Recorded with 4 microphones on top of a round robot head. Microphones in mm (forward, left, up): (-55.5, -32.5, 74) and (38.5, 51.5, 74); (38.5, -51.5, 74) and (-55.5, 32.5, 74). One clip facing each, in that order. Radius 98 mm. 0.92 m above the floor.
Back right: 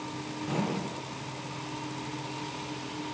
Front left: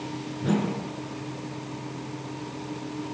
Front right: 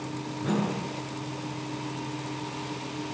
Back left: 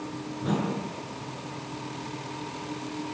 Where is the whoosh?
50° left, 8.5 m.